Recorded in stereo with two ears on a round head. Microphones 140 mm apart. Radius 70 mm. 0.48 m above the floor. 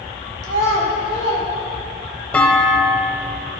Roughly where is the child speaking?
Right.